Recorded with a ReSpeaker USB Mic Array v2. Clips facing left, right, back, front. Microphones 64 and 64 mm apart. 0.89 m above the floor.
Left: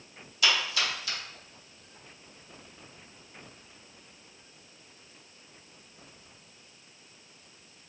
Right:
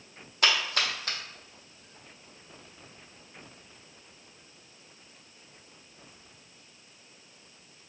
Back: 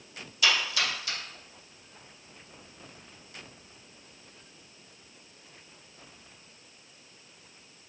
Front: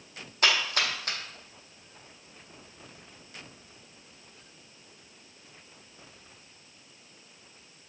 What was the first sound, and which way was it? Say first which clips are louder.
A splash: right 1 dB, front 1 dB; 45° right.